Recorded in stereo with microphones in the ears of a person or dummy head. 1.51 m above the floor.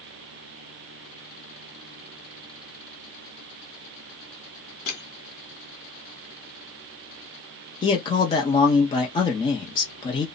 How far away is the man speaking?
About 0.6 m.